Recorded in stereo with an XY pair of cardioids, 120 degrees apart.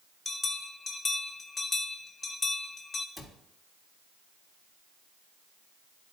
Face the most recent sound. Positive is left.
turn(degrees=-5)